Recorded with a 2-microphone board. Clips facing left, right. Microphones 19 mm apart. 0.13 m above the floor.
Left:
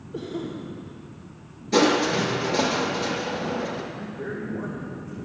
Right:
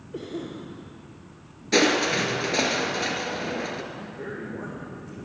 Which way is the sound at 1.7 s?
35° right (ahead or behind).